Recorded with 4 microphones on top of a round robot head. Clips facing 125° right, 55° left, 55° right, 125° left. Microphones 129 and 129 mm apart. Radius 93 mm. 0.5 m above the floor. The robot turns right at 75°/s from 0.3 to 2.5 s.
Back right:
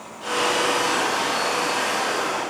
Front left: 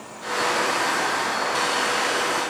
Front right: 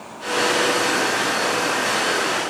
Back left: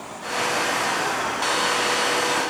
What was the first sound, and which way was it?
Only background noise.